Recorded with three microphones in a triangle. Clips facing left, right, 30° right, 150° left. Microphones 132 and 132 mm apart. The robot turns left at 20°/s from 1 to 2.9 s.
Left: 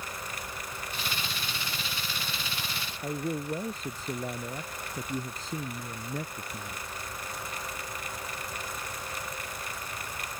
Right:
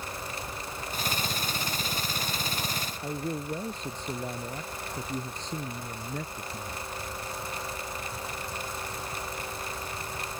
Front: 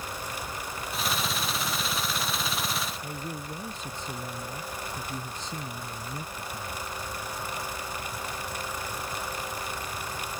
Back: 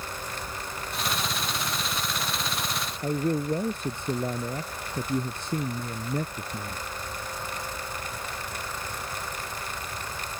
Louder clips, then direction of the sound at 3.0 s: Left 2 dB, back 11 dB; 175° left.